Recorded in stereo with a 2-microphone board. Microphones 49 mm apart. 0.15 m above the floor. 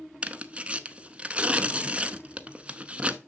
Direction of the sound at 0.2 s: 25° right (ahead or behind).